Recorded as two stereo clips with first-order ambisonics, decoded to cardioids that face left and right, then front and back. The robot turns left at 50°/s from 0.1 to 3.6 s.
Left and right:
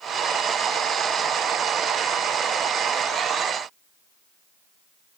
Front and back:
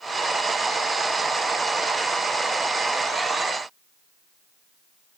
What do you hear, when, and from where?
Only background noise.